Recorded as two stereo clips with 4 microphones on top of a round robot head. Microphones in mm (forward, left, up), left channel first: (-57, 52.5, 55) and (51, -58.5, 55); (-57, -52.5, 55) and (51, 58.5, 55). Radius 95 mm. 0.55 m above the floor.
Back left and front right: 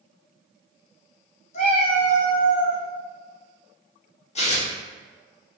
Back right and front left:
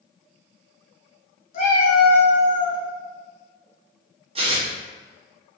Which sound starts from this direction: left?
Tearing paper, at 4.3 s.